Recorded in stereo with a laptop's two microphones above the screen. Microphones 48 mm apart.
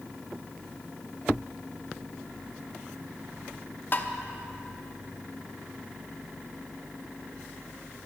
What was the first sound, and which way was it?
Tapping, 40° left (ahead or behind).